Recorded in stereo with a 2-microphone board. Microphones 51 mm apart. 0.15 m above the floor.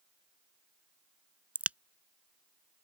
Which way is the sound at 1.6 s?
30° right (ahead or behind).